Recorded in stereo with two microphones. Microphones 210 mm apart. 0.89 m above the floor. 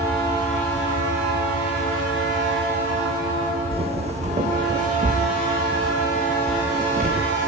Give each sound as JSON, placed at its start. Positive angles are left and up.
{"t": 3.7, "sound": "footsteps", "side_deg": -25, "distance_m": 2.5}